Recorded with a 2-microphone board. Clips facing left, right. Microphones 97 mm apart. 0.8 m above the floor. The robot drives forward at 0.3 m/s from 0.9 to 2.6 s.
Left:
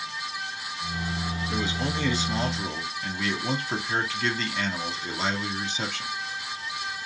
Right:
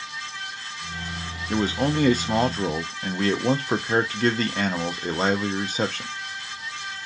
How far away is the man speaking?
About 0.5 m.